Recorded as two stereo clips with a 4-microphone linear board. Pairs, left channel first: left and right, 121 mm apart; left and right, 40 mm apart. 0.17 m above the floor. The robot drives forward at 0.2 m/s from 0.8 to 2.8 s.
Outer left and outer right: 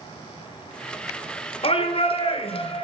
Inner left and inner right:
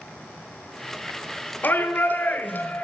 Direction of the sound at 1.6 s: 55° left (ahead or behind).